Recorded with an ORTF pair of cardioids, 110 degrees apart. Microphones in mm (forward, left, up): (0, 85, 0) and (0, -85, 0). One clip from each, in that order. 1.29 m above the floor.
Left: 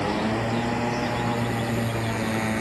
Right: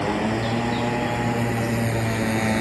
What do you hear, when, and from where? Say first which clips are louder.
0.0 s a motorcycle: right 2 dB; 10° right; by 2.6 s 25° right